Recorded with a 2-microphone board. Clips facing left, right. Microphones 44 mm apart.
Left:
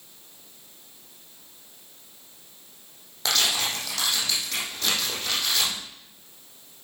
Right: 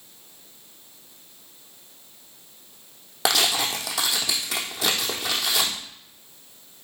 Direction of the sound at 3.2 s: 85° right.